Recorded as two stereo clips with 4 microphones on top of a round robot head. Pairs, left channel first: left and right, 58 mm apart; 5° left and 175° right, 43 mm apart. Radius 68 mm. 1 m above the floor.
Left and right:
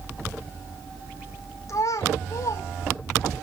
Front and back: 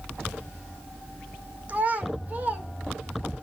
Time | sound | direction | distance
1.7 | a child speaking | 130° left | 2.5 m